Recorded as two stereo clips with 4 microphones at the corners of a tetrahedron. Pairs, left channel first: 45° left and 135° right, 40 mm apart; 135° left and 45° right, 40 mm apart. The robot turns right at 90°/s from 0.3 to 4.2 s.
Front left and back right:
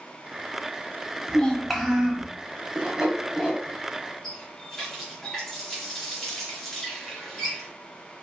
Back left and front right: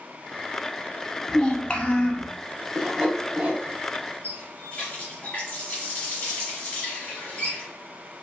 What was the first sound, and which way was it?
A child speaking, 90° left.